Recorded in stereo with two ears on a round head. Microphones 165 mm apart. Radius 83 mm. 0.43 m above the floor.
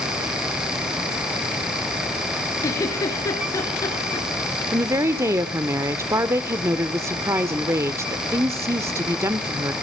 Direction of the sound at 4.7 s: 15° right (ahead or behind).